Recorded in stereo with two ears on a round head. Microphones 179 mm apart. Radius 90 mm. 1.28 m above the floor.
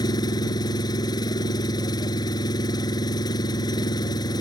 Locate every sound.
0.0 s an engine running: 20° left (ahead or behind)